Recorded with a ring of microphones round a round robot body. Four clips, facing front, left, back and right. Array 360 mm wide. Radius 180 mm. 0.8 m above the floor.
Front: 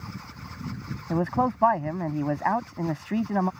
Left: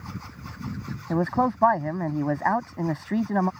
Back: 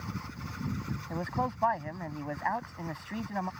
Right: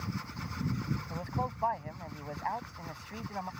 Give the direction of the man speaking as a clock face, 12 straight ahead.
10 o'clock.